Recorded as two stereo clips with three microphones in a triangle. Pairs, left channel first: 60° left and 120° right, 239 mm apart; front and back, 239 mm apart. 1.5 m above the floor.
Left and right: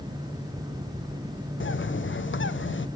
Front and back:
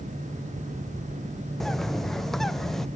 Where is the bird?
90° left, 0.6 m.